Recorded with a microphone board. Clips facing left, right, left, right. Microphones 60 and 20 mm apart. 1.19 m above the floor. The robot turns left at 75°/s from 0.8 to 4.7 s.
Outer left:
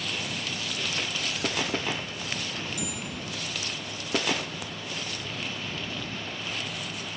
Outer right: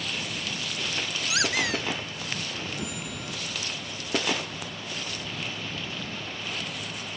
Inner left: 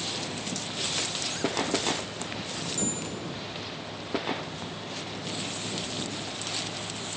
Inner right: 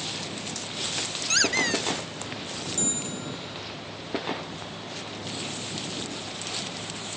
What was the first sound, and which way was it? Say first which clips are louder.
A squeak: outer right 5 dB, inner right 8 dB; 75° right.